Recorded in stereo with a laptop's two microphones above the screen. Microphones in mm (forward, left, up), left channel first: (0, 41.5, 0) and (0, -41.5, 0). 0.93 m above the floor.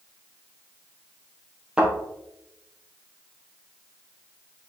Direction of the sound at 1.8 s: 15° right (ahead or behind).